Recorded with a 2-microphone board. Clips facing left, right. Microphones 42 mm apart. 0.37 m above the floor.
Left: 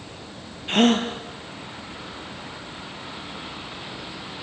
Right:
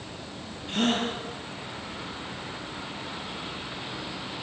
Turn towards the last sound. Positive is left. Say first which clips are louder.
# left 7 dB
turn(degrees=55)  # may be behind; listen again after turning